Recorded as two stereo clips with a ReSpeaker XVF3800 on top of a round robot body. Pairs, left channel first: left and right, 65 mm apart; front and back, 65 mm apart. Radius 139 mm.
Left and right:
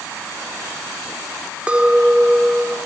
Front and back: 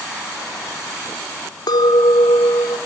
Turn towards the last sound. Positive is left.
turn(degrees=-15)